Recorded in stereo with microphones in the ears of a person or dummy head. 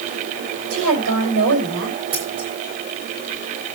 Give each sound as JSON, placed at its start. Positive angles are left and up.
{"t": 0.7, "sound": "a woman speaking", "side_deg": -70, "distance_m": 5.0}
{"t": 2.1, "sound": "scissors", "side_deg": -25, "distance_m": 4.0}